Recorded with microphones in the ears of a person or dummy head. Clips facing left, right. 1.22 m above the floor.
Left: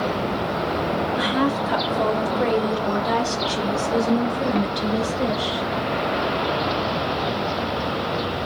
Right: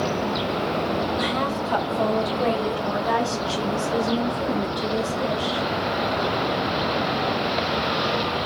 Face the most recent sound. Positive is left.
turn(degrees=35)  # may be behind; listen again after turning